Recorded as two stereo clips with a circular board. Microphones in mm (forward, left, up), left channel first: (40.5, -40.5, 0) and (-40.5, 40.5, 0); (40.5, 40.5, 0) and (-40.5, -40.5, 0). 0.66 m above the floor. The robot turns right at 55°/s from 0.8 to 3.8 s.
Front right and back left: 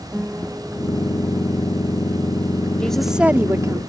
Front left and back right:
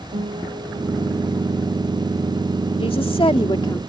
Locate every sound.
0.1 s a guitar: 140° right; by 1.4 s 105° right
2.8 s a woman speaking: 35° left; by 3.8 s 90° left